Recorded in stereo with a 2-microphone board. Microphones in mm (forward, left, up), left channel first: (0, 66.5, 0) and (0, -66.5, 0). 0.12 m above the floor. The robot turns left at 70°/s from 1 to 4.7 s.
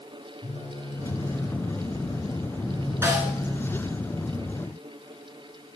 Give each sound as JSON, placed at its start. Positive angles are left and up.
{"t": 0.4, "sound": "a phone buzzing", "azimuth_deg": 70, "distance_m": 2.5}
{"t": 3.0, "sound": "a snare drum", "side_deg": -20, "distance_m": 1.8}